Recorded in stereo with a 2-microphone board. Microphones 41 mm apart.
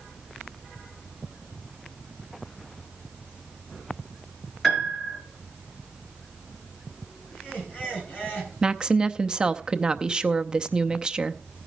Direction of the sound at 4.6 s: 5° left (ahead or behind).